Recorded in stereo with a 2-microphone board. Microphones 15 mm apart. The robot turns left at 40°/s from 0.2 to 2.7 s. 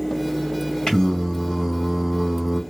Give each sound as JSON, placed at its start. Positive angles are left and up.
{"t": 0.9, "sound": "singing", "azimuth_deg": 50, "distance_m": 2.0}